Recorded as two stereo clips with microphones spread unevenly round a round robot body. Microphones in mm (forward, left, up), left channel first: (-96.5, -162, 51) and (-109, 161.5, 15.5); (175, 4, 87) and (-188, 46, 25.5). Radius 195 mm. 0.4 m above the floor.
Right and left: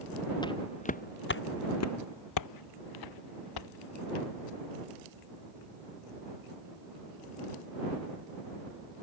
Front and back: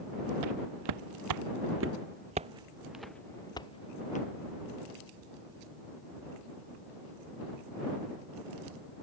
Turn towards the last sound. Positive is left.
turn(degrees=-75)